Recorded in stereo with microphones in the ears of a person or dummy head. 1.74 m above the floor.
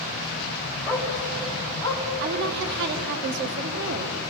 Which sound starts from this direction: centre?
A dog barking, at 0.9 s.